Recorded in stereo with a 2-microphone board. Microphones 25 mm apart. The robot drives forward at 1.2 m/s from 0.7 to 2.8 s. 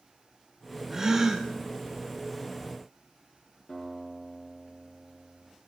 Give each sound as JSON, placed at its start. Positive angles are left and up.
{"t": 0.9, "sound": "a gasp", "side_deg": -15, "distance_m": 2.5}
{"t": 3.7, "sound": "a guitar", "side_deg": 35, "distance_m": 3.0}